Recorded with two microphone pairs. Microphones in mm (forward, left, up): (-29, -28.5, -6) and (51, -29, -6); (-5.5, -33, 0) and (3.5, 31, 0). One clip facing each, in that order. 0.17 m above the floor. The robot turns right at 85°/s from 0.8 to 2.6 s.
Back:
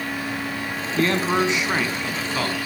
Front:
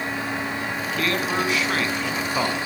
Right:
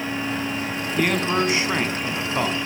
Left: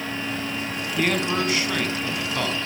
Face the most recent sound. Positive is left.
turn(degrees=-45)